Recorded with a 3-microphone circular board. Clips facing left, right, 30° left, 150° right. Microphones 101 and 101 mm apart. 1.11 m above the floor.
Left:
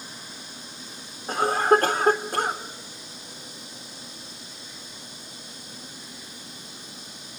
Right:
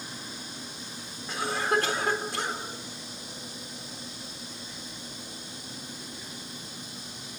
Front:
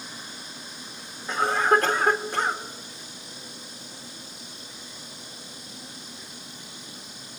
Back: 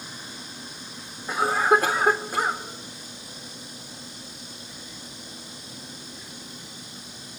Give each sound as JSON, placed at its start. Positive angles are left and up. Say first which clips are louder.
{"t": 1.3, "sound": "a cough", "louder": "left 8 dB, back 1 dB", "azimuth_deg": 130, "distance_m": 4.0}